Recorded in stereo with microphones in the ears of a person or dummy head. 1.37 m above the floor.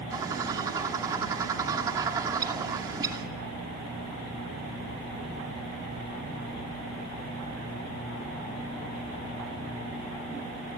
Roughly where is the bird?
Centre.